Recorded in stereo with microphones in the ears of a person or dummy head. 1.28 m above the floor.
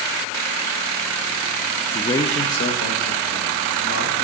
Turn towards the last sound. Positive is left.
turn(degrees=60)  # may be behind; listen again after turning